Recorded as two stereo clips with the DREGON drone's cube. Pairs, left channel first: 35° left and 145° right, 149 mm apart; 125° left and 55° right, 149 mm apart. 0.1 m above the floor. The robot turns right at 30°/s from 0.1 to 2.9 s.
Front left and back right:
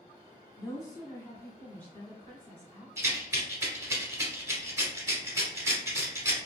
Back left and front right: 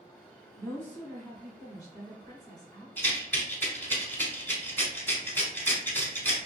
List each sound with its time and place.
0.6 s a woman speaking: 60° left, 1.1 m; by 2.9 s 130° left, 1.1 m
3.0 s a rattle: straight behind, 1.0 m